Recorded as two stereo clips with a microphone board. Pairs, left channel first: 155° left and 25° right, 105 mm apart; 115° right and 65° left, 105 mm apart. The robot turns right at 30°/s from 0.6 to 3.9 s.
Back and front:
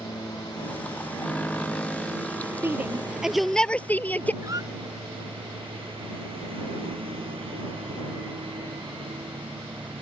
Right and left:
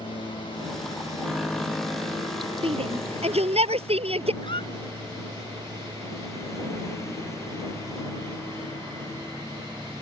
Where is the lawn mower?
150° right; by 10.0 s 50° right.